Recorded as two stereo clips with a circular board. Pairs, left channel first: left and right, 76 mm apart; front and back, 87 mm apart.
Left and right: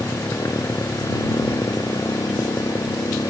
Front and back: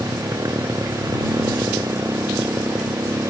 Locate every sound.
0.0 s a motorcycle: 130° left; by 3.3 s 120° left